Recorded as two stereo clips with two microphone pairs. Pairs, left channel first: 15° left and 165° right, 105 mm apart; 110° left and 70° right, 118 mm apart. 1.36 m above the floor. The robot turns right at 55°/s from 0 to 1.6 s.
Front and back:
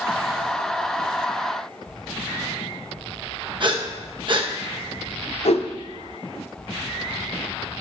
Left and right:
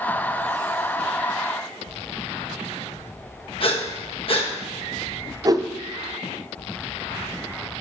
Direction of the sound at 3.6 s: 150° left.